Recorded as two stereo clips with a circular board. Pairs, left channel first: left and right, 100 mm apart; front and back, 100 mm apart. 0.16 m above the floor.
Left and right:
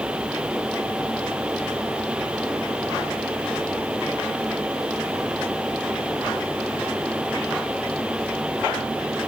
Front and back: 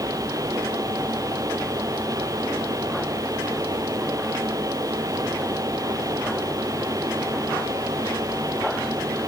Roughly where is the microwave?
No microwave in this recording.